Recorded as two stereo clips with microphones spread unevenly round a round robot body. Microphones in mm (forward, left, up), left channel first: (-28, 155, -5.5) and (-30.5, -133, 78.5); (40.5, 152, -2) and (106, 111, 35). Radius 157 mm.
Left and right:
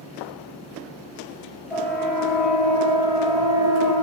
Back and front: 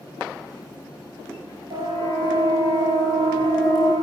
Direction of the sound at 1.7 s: Straight ahead.